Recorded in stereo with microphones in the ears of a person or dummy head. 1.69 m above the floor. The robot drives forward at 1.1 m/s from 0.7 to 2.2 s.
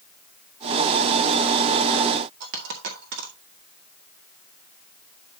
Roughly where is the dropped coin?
Right.